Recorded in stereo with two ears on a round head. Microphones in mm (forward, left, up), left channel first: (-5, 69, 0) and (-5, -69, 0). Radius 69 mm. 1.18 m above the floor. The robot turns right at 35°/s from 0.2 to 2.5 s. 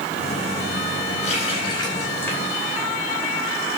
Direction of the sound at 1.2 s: 50° left (ahead or behind).